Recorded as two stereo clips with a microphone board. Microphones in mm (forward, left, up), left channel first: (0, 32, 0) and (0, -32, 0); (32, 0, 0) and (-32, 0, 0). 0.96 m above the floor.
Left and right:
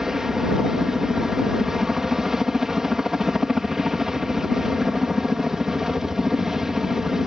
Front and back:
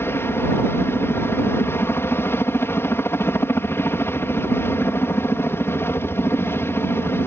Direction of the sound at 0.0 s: 10° right.